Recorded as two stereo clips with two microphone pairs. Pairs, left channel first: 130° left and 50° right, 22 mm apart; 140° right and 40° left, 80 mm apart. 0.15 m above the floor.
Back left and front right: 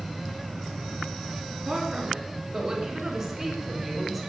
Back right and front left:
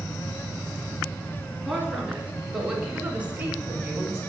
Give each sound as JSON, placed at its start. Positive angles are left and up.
{"t": 1.6, "sound": "a woman speaking", "azimuth_deg": -50, "distance_m": 2.5}